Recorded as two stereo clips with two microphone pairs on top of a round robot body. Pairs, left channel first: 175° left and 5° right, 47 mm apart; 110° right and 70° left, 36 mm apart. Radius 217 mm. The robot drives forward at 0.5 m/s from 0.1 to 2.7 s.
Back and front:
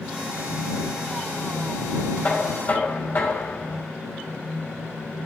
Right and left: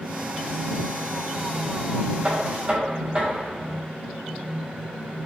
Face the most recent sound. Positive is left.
turn(degrees=130)